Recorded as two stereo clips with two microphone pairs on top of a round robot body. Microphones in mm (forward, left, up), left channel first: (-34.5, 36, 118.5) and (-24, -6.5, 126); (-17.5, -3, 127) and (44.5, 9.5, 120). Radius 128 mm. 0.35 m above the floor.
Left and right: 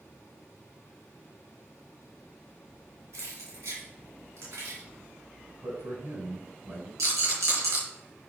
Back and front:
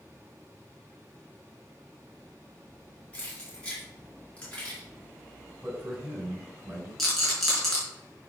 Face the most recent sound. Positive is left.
turn(degrees=-80)